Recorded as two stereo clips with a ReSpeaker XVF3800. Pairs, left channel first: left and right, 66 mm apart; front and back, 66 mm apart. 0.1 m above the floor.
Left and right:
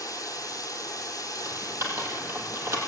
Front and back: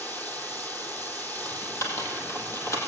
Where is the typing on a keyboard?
40° right, 3.5 m.